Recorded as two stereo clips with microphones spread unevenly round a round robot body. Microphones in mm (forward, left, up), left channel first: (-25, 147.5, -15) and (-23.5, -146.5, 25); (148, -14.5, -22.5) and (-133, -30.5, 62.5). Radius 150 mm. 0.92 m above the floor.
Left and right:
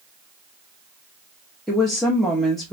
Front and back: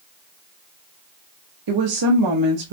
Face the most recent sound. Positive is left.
turn(degrees=175)